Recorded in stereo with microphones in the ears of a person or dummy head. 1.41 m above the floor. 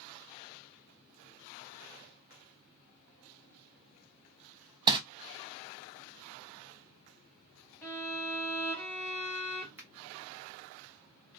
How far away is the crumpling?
About 0.7 m.